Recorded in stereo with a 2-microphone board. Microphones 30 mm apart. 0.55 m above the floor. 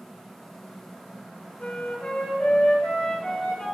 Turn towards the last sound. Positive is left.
turn(degrees=65)  # may be behind; listen again after turning